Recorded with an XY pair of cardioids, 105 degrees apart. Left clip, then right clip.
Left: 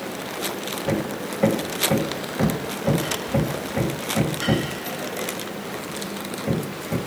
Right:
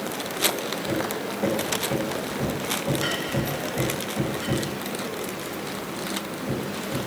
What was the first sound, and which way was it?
Hammering, 50° left.